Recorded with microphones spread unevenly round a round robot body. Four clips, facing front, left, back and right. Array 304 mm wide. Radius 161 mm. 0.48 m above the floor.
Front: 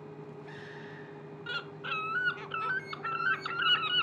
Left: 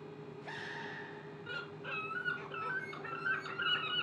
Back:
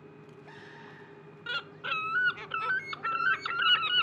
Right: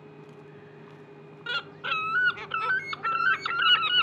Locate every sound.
1.5 s a bird: 85° right, 0.5 m